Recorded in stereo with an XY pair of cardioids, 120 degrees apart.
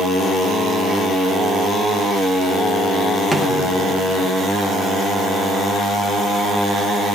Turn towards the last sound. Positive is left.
turn(degrees=0)